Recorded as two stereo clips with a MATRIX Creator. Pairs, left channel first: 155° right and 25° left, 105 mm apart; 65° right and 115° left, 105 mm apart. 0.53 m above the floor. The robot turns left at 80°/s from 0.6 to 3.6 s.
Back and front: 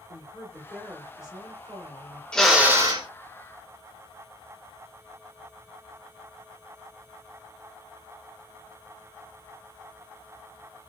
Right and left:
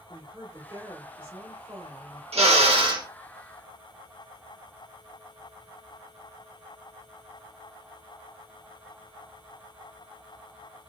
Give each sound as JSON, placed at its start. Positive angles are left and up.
{"t": 0.1, "sound": "a woman speaking", "azimuth_deg": 155, "distance_m": 1.6}
{"t": 2.3, "sound": "a drill", "azimuth_deg": 120, "distance_m": 0.8}